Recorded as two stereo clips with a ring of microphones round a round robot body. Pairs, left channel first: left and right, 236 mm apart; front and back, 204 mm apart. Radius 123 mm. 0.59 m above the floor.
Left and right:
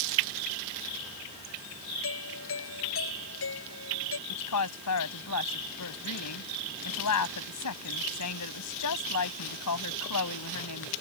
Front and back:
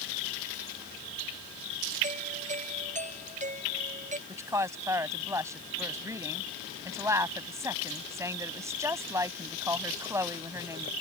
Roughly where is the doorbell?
Behind left.